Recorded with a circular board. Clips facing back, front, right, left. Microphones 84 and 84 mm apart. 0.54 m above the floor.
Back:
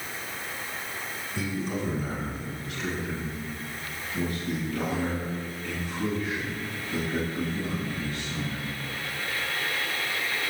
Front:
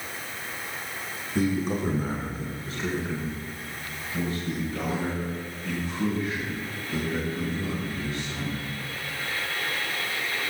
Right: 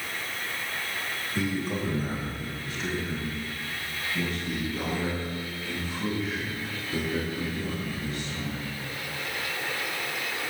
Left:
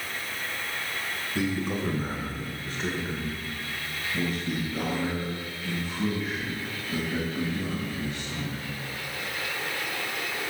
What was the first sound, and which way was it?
A man speaking, 15° left.